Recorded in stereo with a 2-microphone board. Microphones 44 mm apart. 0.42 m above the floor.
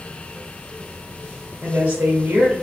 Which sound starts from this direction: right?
A woman speaking, at 1.6 s.